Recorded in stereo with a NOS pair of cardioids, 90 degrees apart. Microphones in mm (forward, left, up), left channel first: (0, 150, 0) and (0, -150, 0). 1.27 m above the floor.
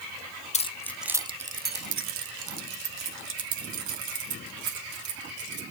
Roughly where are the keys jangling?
Ahead left.